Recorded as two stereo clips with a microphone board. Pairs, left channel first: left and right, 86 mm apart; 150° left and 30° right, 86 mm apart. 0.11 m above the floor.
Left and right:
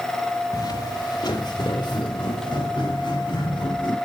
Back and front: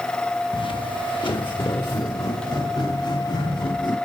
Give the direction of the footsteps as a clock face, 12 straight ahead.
7 o'clock.